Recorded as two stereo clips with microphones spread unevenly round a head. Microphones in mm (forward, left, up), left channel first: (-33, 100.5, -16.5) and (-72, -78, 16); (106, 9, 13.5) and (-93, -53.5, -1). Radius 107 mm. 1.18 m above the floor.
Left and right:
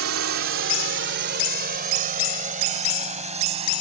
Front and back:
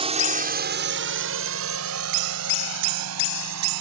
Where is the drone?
100° right; by 3.8 s 160° right.